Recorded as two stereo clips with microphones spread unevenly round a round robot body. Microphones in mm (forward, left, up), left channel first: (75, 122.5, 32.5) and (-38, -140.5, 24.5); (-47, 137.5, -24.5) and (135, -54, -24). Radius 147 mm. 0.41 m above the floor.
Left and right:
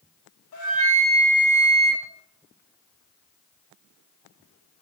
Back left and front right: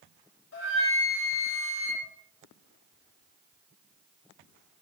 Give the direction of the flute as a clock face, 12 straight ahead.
9 o'clock.